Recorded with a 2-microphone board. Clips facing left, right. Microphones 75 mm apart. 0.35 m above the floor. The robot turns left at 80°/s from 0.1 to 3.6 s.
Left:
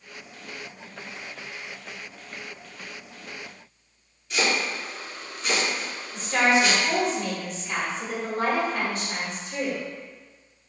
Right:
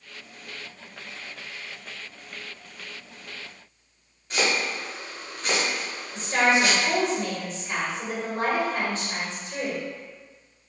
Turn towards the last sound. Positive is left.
turn(degrees=-35)  # may be behind; listen again after turning